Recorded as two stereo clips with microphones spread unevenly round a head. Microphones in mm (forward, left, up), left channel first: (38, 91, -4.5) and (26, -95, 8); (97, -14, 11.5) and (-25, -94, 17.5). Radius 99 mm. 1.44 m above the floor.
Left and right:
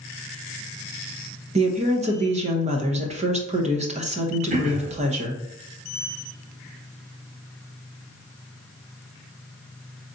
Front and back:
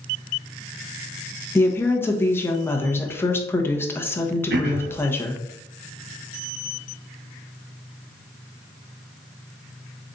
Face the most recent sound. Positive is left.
turn(degrees=-155)